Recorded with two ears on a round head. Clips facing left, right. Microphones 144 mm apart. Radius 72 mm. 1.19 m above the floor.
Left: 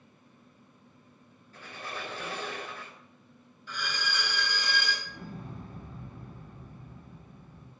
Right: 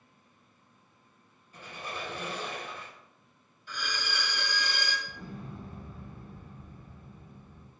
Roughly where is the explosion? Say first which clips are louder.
Even; left.